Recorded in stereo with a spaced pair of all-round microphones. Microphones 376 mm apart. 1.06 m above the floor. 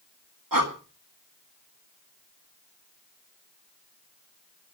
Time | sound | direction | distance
0.5 | breathing | 60° right (ahead or behind) | 1.9 m